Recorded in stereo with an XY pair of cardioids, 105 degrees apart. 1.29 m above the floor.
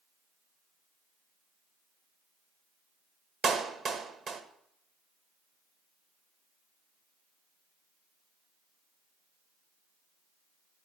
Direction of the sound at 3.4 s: 55° right.